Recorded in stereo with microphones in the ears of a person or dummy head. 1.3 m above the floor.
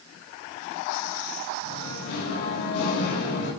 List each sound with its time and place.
1.6 s singing: 80° left, 5 m